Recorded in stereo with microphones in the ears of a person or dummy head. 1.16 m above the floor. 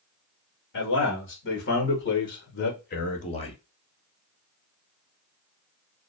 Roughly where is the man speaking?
Left.